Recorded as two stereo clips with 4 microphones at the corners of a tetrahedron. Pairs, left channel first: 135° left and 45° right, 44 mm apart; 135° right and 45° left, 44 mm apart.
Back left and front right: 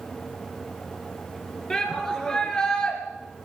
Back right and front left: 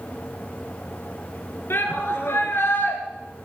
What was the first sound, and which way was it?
A shout, 150° right.